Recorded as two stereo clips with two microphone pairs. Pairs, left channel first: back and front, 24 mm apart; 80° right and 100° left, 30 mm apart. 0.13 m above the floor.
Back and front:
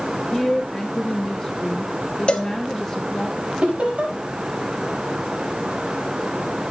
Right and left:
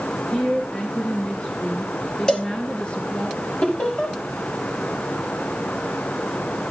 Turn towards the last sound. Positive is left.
turn(degrees=-40)